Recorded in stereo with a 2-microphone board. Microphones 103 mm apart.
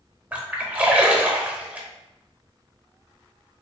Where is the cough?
No cough in this recording.